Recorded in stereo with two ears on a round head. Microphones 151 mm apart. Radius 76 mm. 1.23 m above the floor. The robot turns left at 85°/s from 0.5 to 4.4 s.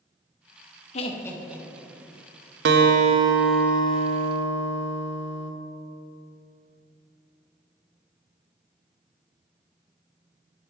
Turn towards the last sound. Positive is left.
turn(degrees=105)